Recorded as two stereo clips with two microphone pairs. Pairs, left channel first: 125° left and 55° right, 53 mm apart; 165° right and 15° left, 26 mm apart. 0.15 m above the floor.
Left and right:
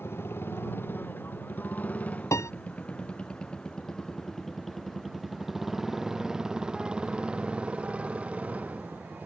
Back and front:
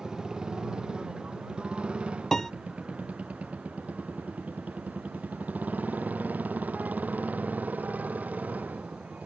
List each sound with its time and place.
0.0 s a motorcycle: 80° left; by 9.3 s 5° left
2.3 s a piano: 125° left